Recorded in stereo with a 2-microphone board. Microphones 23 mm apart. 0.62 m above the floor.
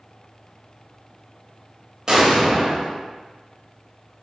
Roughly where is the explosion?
Right.